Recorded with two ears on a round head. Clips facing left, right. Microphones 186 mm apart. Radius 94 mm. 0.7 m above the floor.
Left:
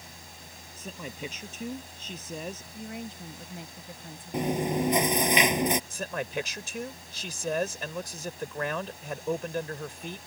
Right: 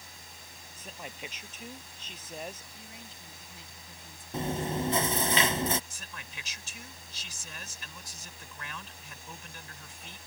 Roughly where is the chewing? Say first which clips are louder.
Left 5 dB; centre.